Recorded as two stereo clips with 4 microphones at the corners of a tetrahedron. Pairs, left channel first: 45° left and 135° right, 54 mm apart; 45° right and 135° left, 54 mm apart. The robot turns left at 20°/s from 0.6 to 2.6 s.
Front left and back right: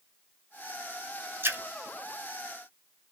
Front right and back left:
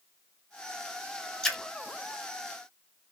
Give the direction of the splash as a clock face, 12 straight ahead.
4 o'clock.